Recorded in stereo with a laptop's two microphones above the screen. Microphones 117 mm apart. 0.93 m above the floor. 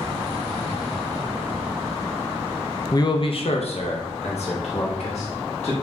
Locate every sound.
2.9 s a man speaking: 30° left (ahead or behind), 0.5 m; by 5.7 s 65° left (ahead or behind), 1.8 m